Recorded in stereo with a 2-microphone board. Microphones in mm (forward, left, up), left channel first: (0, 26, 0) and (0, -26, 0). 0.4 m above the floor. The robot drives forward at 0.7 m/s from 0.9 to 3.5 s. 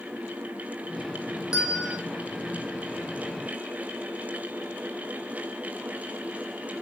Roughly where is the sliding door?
No sliding door in this recording.